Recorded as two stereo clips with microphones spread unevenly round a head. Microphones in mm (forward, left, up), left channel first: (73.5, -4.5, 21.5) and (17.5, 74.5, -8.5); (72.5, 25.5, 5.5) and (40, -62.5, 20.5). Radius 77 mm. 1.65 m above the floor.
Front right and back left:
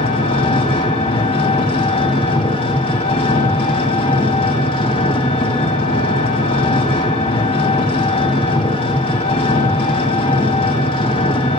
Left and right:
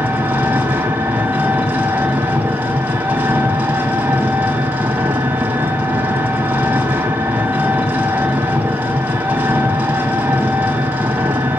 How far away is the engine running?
About 2.5 m.